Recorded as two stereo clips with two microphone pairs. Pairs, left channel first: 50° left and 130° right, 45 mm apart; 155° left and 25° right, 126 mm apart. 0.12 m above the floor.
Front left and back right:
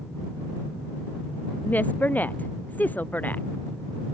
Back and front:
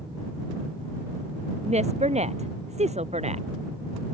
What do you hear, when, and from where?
1.6 s a woman speaking: straight ahead